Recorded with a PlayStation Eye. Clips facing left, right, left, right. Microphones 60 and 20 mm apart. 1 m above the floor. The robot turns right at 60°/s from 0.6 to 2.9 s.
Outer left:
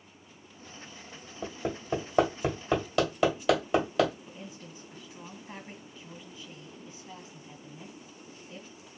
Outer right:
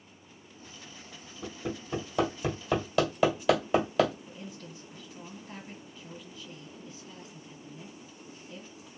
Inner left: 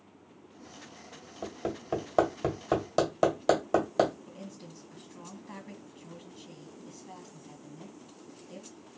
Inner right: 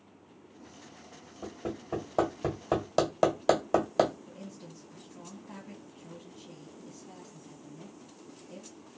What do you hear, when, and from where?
1.4 s hammering: 70° left (ahead or behind), 1.5 m; by 4.1 s centre (ahead or behind), 1.5 m
4.3 s a woman speaking: 20° left (ahead or behind), 1.3 m